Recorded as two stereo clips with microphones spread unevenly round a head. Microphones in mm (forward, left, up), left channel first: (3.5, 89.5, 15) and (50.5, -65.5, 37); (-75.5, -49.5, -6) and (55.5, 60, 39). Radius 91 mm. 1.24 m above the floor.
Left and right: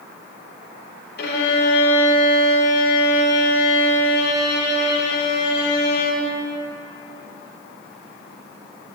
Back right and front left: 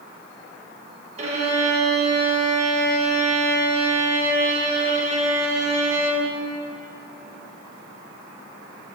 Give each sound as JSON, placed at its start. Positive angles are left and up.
{"t": 1.2, "sound": "a violin", "azimuth_deg": 80, "distance_m": 1.7}